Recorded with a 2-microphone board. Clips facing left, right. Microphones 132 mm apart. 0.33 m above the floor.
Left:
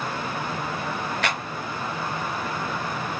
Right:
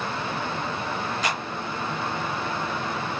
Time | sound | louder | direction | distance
1.2 | a clap | left 1 dB | 65° left (ahead or behind) | 3.5 m